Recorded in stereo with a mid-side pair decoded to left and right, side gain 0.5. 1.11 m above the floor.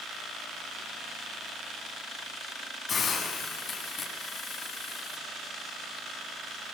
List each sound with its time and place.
2.9 s a hiss: 50° left, 8 m